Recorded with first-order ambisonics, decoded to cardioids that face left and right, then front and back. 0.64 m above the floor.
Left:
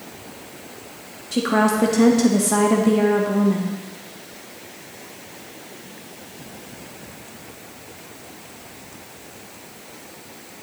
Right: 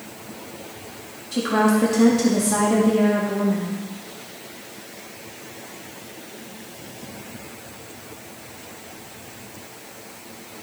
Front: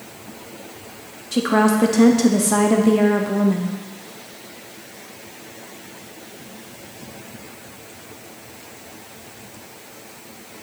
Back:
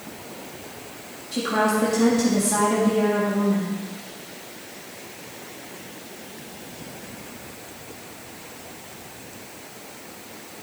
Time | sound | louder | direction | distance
1.3 | a woman speaking | left 1 dB, front 4 dB | 30° left | 0.6 m